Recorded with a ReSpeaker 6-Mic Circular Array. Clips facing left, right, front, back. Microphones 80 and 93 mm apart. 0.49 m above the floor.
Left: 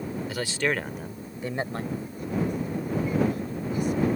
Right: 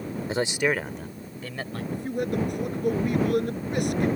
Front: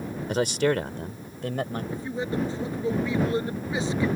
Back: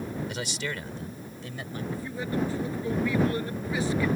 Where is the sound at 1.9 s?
70° right.